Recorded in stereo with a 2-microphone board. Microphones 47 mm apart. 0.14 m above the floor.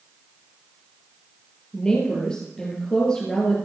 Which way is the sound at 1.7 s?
20° left (ahead or behind).